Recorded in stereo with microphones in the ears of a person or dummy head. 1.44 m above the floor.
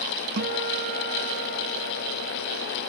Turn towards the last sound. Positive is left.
turn(degrees=-55)  # may be behind; listen again after turning